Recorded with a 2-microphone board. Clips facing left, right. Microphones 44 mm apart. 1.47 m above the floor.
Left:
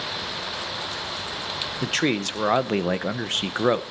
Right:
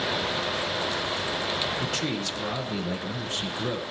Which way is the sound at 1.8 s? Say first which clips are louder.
Left 5 dB; 65° left (ahead or behind).